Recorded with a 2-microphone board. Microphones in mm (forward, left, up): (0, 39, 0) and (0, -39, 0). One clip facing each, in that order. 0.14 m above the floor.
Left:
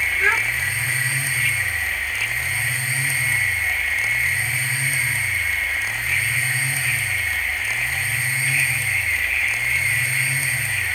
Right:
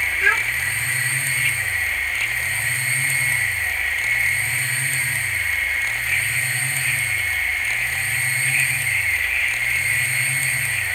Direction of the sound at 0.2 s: 40° left (ahead or behind).